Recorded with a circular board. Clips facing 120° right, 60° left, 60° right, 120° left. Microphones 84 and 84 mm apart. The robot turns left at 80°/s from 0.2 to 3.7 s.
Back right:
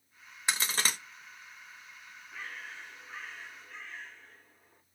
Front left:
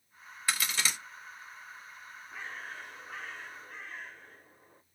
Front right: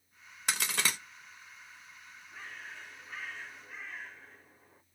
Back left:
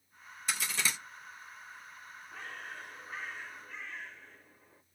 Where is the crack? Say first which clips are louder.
Back right 1 dB, front right 2 dB; 50° right, 0.7 m; by 1.0 s 90° right, 0.7 m.